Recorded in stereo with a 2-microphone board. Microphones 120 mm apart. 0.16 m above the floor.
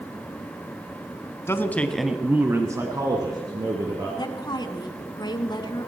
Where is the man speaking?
20° left (ahead or behind), 1.3 m; by 4.1 s 40° right (ahead or behind), 3 m.